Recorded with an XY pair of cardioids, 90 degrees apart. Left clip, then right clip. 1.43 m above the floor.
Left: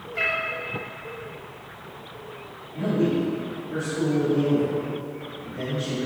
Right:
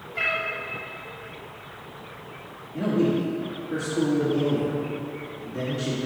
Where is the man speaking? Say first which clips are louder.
Even; 55° right, 2.5 m.